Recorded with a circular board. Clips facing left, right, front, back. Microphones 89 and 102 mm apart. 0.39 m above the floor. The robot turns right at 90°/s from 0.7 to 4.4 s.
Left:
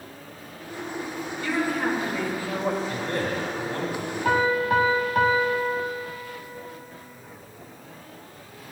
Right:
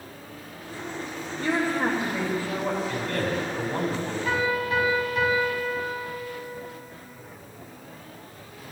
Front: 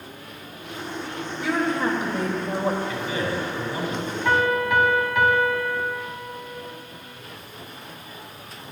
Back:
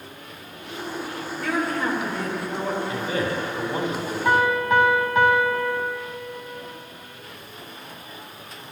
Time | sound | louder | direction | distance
1.4 | a woman speaking | right 1 dB, front 2 dB | 85° right | 1.8 m
2.9 | a man speaking | even, back 1 dB | 125° left | 3 m
4.2 | a piano | left 5 dB, back 1 dB | 105° left | 1.3 m